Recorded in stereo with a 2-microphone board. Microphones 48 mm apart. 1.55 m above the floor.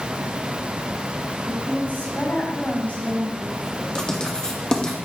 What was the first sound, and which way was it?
A woman speaking, 40° left (ahead or behind).